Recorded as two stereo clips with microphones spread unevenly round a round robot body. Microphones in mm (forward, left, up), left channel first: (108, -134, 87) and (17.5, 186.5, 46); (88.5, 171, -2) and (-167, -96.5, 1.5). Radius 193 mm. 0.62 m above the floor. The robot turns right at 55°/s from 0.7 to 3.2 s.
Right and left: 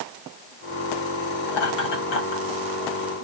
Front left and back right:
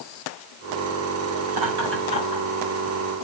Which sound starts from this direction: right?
Laughter, at 1.5 s.